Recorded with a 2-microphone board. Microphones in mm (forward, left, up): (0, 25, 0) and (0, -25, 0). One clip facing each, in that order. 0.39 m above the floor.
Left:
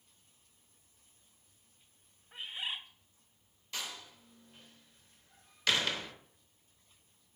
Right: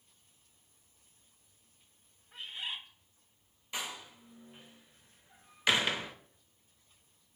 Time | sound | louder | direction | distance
2.3 | a bird | left 1 dB | 20° left (ahead or behind) | 1.0 m
3.7 | a door slam | right 2 dB | 20° right (ahead or behind) | 0.9 m